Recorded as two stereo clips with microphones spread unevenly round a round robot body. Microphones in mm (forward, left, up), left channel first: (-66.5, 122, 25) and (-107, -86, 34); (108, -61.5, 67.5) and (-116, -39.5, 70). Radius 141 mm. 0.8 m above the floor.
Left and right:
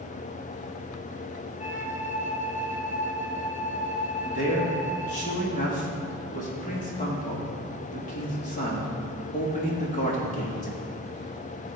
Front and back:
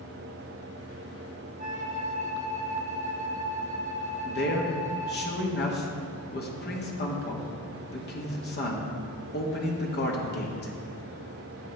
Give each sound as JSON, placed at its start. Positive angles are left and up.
{"t": 1.6, "sound": "a flute", "azimuth_deg": 125, "distance_m": 1.4}
{"t": 4.2, "sound": "a man speaking", "azimuth_deg": 30, "distance_m": 1.6}